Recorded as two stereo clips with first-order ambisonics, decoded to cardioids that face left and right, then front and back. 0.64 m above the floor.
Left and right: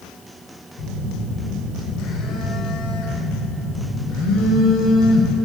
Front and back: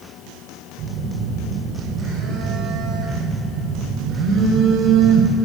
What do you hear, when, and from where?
0.8 s a phone buzzing: 125° left, 3 m